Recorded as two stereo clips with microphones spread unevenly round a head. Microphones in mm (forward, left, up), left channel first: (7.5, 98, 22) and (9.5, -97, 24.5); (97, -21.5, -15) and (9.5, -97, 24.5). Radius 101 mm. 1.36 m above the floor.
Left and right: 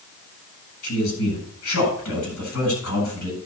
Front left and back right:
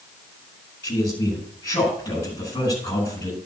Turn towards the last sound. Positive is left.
turn(degrees=115)